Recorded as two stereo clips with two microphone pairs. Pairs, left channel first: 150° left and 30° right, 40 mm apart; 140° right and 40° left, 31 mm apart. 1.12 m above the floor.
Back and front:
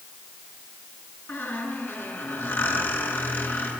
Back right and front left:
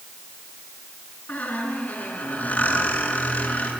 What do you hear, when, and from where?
1.3 s a squeak: 175° left, 6.5 m